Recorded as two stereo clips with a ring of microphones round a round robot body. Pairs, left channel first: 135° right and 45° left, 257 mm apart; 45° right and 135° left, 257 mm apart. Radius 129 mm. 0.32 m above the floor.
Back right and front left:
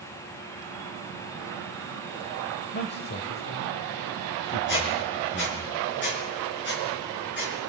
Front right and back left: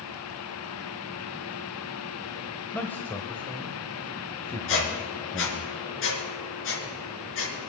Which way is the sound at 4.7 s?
85° right.